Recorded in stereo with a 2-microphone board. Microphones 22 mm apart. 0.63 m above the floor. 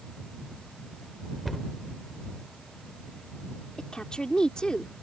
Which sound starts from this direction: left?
A woman speaking, at 3.8 s.